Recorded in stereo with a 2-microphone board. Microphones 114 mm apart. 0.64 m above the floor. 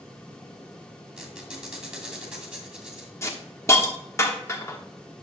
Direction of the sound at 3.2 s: 25° left (ahead or behind).